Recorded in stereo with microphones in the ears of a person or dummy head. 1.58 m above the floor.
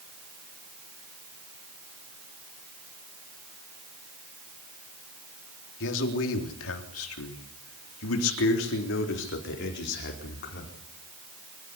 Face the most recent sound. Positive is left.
turn(degrees=50)  # may be behind; listen again after turning